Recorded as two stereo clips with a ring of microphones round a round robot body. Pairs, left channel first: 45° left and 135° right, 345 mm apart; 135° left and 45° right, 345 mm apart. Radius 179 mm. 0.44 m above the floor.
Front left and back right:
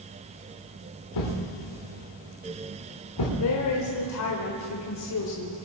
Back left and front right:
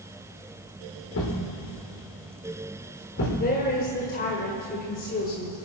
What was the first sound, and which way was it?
A thud, 80° left.